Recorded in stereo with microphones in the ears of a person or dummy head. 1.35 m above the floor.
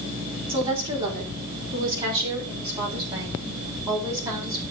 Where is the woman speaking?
30° right (ahead or behind), 4 m; by 4.6 s 20° right (ahead or behind), 6.5 m.